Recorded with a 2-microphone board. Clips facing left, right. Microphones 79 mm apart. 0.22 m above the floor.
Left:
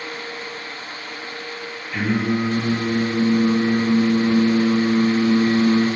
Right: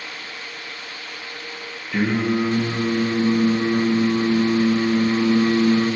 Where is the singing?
60° right (ahead or behind), 5 m.